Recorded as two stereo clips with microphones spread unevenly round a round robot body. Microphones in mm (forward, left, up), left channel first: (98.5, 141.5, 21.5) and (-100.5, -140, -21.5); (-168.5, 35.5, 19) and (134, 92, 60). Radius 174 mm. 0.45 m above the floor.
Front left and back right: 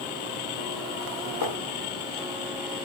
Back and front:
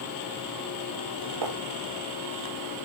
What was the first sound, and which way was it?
Writing, 15° left.